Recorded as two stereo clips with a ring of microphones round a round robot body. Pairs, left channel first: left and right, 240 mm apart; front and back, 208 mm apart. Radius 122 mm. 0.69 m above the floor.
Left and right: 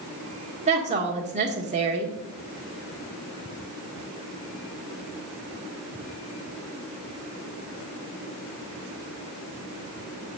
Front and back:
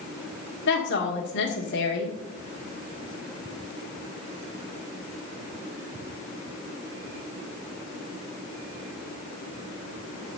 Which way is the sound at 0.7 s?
30° right.